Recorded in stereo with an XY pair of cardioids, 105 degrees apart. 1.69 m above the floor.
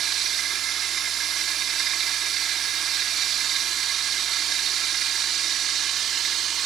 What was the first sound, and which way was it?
Running water, 65° right.